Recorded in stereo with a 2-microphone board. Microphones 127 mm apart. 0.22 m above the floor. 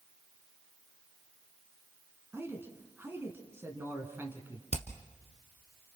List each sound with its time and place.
2.3 s a man speaking: 20° right (ahead or behind), 2.5 m
4.7 s hammering: 60° left (ahead or behind), 1.6 m